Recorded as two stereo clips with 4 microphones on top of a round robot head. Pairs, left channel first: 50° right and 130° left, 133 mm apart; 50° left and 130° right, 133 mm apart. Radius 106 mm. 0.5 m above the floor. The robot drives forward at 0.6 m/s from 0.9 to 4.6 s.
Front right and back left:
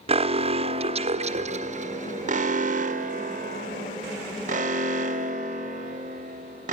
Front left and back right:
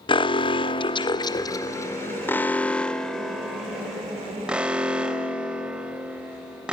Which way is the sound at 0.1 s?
95° left.